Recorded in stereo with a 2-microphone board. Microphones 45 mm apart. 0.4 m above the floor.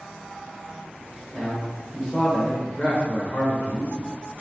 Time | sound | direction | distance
1.3 | a man speaking | 10° right (ahead or behind) | 1.4 m